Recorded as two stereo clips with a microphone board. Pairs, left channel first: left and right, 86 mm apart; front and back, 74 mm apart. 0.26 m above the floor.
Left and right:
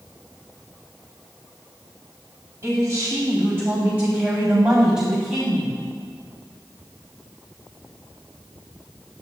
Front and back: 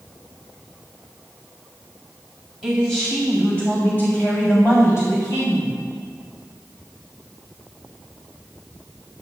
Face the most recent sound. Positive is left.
turn(degrees=0)